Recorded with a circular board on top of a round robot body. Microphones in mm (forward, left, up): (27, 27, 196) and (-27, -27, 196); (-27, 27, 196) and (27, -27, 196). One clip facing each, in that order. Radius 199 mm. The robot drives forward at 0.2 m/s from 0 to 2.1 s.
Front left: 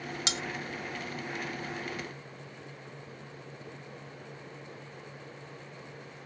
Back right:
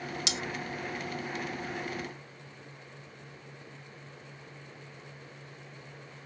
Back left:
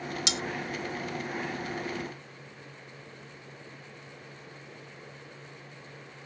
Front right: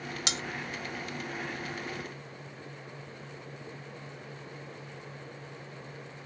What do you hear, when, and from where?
0.3 s cutlery clinking: 5° right, 0.7 m